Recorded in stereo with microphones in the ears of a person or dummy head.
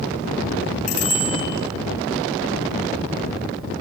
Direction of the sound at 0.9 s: 70° left (ahead or behind).